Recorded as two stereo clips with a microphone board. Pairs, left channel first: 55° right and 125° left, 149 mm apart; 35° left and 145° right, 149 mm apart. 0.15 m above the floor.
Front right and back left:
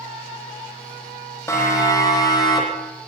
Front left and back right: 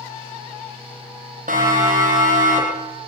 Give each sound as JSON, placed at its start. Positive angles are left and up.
{"t": 1.5, "sound": "a siren", "azimuth_deg": -125, "distance_m": 10.0}